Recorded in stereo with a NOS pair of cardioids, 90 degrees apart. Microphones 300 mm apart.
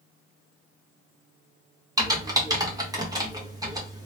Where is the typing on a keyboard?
10° right, 1.5 m.